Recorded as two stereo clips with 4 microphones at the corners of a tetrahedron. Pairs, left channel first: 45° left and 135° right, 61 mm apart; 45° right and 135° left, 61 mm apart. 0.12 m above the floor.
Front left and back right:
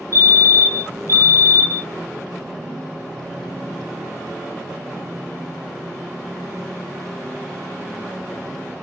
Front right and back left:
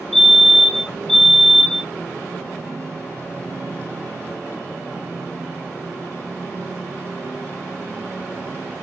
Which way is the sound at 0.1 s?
45° left.